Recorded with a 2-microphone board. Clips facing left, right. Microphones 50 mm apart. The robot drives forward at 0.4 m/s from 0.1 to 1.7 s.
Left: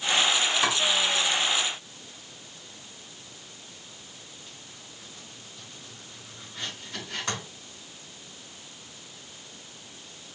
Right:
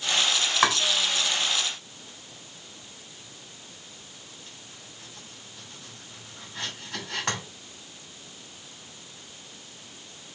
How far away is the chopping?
About 3 m.